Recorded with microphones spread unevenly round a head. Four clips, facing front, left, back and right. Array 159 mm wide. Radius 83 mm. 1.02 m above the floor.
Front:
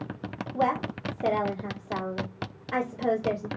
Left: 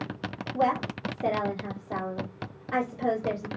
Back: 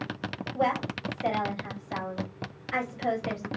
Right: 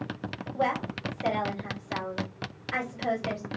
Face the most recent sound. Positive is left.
turn(degrees=40)